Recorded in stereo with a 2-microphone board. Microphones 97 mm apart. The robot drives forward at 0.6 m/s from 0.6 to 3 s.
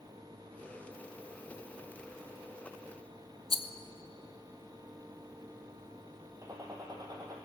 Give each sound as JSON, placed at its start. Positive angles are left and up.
{"t": 3.5, "sound": "a rattle", "side_deg": 80, "distance_m": 0.7}
{"t": 6.4, "sound": "a gunshot", "side_deg": -40, "distance_m": 2.0}